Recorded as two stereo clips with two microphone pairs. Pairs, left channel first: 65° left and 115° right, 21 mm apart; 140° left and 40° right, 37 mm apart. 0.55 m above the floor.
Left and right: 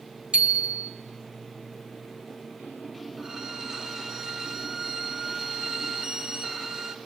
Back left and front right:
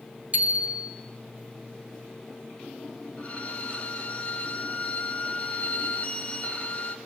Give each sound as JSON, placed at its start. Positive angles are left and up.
{"t": 0.3, "sound": "a bicycle bell", "azimuth_deg": -90, "distance_m": 3.5}
{"t": 3.2, "sound": "a violin", "azimuth_deg": -175, "distance_m": 2.0}